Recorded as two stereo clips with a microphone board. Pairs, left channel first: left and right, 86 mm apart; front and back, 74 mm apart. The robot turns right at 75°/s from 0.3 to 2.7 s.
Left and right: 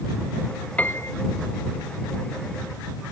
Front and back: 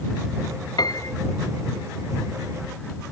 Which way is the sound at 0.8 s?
20° left.